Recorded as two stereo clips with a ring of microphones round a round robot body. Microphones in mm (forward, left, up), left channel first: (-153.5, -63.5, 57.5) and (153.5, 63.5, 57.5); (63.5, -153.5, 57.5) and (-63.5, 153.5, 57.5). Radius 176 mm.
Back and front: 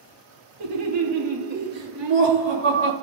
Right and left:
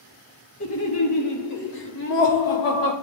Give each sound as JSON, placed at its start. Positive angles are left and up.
{"t": 0.6, "sound": "laughter", "azimuth_deg": -20, "distance_m": 2.0}